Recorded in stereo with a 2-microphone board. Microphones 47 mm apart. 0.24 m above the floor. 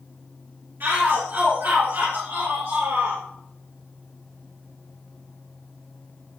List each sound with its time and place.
0.8 s a shout: 65° right (ahead or behind), 4 m; by 3.2 s 75° right (ahead or behind), 3.5 m